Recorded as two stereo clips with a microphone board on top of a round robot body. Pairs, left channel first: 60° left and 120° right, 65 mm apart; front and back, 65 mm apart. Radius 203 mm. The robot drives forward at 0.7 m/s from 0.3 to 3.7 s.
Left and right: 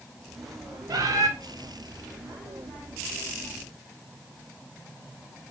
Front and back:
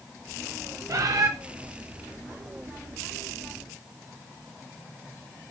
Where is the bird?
140° right, 0.8 m; by 1.3 s 150° right, 1.0 m.